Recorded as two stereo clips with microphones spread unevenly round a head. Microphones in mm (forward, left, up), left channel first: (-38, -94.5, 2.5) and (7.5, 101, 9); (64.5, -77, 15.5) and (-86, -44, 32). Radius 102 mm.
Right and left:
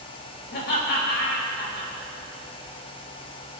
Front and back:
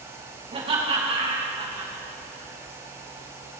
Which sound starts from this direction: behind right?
Laughter, at 0.5 s.